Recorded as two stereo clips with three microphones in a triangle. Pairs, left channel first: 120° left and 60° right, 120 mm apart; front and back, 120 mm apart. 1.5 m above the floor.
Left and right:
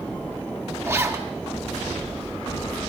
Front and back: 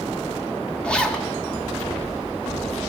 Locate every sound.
0.8 s a zipper: 65° right, 1.0 m